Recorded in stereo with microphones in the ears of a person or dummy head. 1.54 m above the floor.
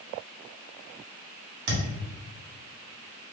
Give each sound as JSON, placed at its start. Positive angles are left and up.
{"t": 1.7, "sound": "a thud", "side_deg": -65, "distance_m": 1.8}